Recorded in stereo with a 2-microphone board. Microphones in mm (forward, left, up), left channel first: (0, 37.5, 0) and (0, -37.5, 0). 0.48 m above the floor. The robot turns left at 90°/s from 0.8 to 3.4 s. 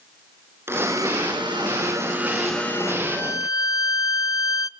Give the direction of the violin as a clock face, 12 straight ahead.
7 o'clock.